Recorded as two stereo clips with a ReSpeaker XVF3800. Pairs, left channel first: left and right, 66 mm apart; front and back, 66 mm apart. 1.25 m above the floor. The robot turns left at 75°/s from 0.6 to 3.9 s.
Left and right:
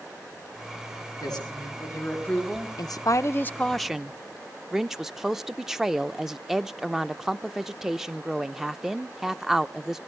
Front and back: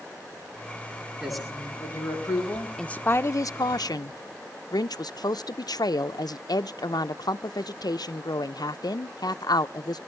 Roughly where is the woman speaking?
Left.